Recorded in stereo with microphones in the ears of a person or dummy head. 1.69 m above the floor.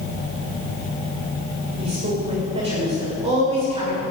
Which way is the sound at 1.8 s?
35° right (ahead or behind).